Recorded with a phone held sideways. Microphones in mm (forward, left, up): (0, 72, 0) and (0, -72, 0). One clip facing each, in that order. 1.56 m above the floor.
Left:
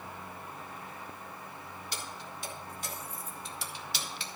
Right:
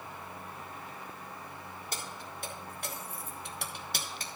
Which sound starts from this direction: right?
Keys jangling, at 1.9 s.